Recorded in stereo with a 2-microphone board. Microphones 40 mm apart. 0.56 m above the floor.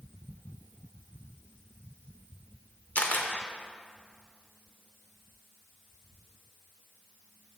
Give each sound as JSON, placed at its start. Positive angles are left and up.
{"t": 3.0, "sound": "a camera shutter", "side_deg": 45, "distance_m": 0.7}